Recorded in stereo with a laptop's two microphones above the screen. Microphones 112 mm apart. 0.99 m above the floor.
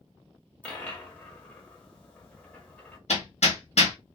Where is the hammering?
70° left (ahead or behind), 0.9 m.